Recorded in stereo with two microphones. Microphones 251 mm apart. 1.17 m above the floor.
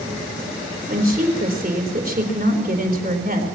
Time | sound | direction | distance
0.9 | a woman speaking | 35° right (ahead or behind) | 4 m